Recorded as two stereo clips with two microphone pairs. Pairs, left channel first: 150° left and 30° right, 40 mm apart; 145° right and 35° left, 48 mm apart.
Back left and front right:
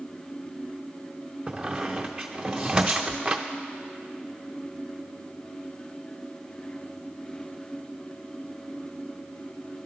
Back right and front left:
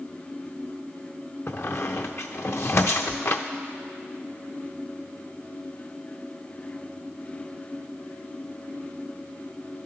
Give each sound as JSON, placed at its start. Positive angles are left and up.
{"t": 1.5, "sound": "a squeak", "azimuth_deg": -105, "distance_m": 0.5}